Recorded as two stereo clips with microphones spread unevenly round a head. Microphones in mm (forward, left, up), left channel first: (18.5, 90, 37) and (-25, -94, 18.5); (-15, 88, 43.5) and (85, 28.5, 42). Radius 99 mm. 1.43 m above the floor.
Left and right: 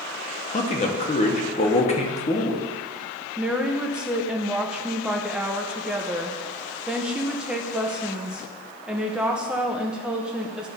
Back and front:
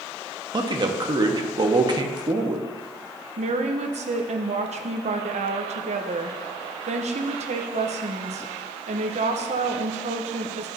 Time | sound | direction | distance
0.5 | a man speaking | 20° left | 1.1 m
3.4 | a woman speaking | 15° right | 0.7 m